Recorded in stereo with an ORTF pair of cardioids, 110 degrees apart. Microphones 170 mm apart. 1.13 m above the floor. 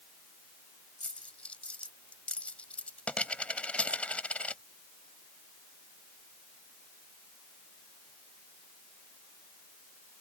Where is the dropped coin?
5° left.